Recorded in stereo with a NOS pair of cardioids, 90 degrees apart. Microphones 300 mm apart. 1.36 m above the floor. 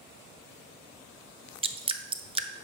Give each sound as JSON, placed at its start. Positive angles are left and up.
{"t": 1.6, "sound": "dripping", "azimuth_deg": -20, "distance_m": 0.5}